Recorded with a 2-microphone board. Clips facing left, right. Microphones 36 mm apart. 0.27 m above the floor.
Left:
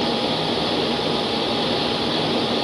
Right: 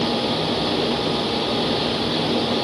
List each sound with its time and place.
Only background noise.